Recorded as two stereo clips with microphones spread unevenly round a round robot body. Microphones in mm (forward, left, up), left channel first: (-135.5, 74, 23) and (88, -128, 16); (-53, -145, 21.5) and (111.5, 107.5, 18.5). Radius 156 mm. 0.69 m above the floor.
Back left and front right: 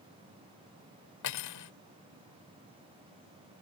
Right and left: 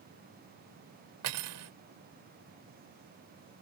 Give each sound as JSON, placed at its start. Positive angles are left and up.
{"t": 1.2, "sound": "cutlery clinking", "azimuth_deg": 100}